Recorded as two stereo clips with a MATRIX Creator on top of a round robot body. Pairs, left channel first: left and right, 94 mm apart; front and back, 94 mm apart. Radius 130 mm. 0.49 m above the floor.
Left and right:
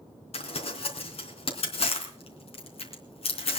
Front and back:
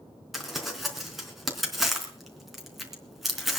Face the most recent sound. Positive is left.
turn(degrees=90)